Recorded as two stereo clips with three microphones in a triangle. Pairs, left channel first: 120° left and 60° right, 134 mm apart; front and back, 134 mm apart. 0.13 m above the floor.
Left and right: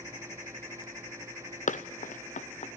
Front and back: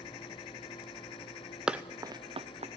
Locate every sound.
1.7 s running footsteps: 95° left, 0.7 m; by 2.7 s 150° left, 0.8 m